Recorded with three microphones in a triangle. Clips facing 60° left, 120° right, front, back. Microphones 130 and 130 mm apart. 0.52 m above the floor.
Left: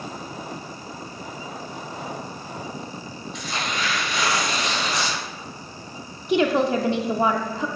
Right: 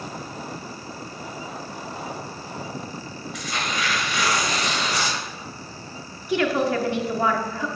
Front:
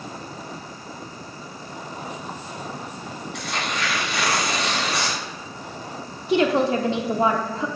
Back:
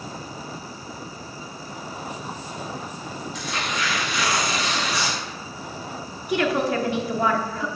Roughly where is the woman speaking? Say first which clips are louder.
Left 2 dB, front 3 dB; ahead left.